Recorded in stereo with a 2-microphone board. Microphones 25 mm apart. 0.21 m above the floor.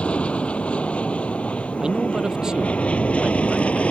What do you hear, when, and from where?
0.0 s an aircraft: 55° left (ahead or behind); by 3.9 s 60° left (ahead or behind)
1.8 s a man speaking: 30° right (ahead or behind)